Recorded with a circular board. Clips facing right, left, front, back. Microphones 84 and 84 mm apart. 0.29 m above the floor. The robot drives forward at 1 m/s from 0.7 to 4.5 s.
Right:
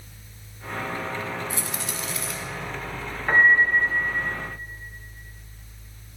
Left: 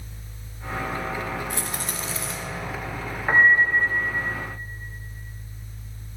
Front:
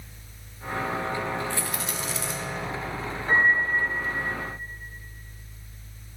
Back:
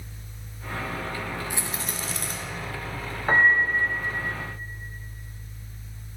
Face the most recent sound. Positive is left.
turn(degrees=175)